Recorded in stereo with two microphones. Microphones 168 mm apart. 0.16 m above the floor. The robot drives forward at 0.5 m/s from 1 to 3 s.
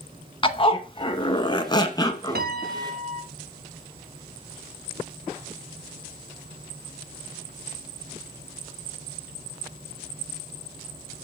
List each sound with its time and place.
0.4 s a zipper: 30° left (ahead or behind), 0.8 m; by 2.5 s 20° left (ahead or behind), 1.1 m
2.4 s a piano: 70° right (ahead or behind), 0.7 m; by 3.2 s 50° right (ahead or behind), 0.8 m